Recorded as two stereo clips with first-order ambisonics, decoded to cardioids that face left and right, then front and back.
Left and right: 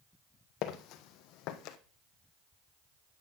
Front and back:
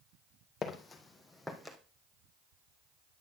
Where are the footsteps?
65° left, 1.2 m; by 1.8 s 95° left, 1.4 m.